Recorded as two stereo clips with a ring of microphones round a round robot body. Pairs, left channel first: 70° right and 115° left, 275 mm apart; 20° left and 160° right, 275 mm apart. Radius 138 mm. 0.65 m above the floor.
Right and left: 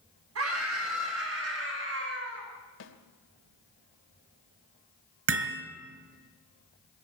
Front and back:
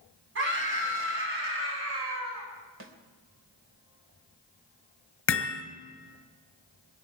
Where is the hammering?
70° left, 3 m.